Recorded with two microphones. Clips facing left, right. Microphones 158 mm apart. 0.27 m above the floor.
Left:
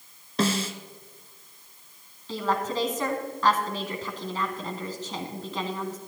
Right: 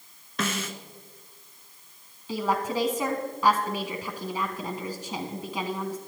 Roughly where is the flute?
I don't hear a flute.